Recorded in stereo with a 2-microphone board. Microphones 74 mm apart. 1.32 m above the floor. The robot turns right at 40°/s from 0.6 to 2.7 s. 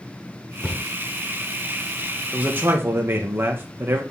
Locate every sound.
0.6 s a cupboard door: 15° left (ahead or behind), 1.1 m; by 0.8 s 10° left (ahead or behind), 1.1 m
2.3 s a man speaking: 15° right (ahead or behind), 1.4 m; by 4.0 s 30° right (ahead or behind), 1.4 m